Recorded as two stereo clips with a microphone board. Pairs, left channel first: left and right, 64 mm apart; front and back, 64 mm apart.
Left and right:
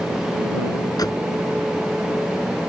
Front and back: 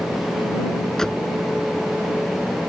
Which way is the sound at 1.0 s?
85° left.